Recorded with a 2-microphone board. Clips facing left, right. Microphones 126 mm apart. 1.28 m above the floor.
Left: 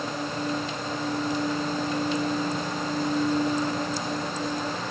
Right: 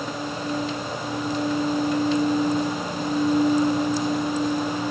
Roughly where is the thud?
No thud in this recording.